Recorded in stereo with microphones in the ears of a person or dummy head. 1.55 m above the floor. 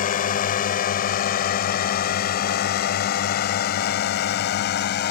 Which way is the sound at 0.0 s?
40° left (ahead or behind).